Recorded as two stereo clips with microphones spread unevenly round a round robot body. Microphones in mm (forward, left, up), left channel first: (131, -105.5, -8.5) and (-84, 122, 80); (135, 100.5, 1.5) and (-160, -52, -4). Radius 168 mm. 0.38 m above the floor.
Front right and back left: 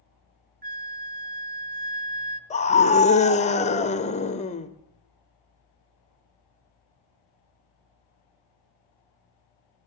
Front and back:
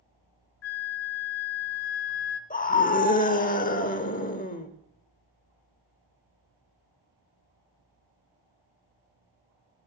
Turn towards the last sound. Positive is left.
turn(degrees=-25)